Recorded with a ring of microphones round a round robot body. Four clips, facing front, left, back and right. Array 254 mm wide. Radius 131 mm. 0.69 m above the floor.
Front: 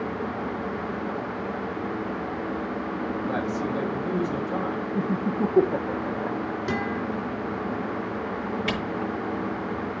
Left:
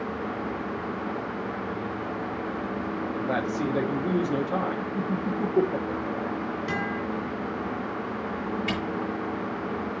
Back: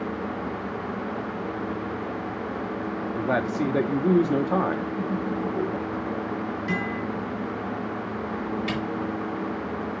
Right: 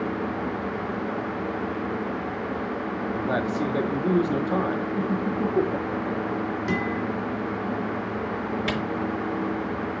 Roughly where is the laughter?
Ahead.